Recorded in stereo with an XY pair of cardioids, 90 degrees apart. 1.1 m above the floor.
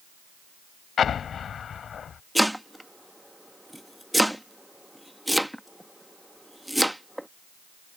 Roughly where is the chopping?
Ahead.